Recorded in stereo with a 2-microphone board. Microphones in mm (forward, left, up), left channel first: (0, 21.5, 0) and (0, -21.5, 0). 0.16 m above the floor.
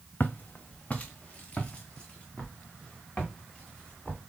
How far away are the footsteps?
About 0.6 m.